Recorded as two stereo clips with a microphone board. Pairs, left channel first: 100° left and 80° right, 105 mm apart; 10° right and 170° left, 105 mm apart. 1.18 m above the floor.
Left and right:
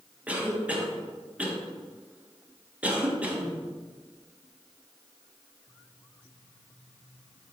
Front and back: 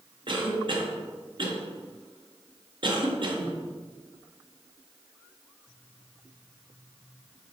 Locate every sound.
0.3 s a cough: 155° right, 1.5 m